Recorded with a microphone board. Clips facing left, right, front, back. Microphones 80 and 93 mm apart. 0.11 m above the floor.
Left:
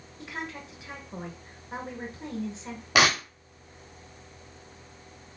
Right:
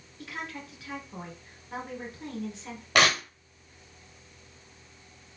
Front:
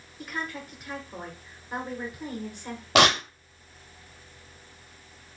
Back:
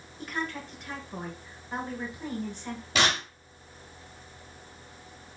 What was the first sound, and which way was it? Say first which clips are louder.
A woman speaking: left 1 dB, back 1 dB; 80° left.